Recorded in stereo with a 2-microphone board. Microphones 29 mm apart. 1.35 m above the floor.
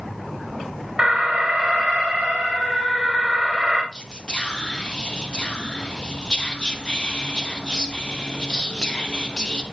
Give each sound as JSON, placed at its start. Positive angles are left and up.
{"t": 1.0, "sound": "an alarm", "side_deg": -35, "distance_m": 3.5}
{"t": 3.9, "sound": "whispering", "side_deg": 30, "distance_m": 1.5}